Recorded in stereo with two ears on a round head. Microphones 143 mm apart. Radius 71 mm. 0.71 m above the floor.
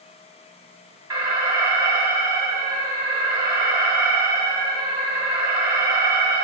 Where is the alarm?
30° right (ahead or behind), 2 m.